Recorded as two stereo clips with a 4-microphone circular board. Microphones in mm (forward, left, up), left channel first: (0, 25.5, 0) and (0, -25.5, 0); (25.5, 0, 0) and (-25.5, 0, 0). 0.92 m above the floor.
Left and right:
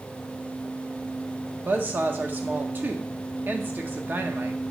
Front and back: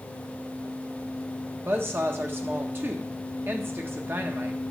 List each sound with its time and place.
1.6 s a woman speaking: 135° right, 1.2 m